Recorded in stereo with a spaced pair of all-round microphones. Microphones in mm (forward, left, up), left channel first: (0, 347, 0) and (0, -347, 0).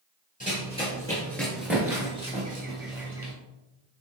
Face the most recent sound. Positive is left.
turn(degrees=-20)  # may be behind; listen again after turning